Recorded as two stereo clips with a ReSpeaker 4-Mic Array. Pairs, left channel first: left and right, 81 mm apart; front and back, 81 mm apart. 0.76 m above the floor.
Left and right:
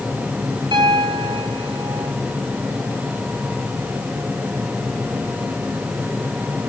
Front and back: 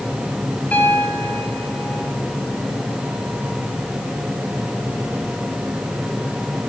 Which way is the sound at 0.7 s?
70° right.